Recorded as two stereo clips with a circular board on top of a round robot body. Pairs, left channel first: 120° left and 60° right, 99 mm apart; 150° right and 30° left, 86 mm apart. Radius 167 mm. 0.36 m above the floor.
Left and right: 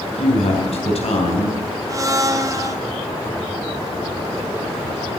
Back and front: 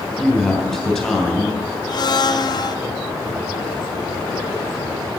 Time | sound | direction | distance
0.2 | a woman speaking | 125° left | 3.5 m
1.9 | a blender | 115° right | 1.1 m